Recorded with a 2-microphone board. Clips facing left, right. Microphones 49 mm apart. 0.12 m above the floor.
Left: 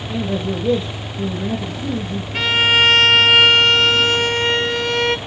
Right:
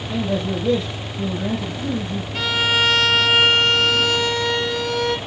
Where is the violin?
45° left (ahead or behind), 1.4 m.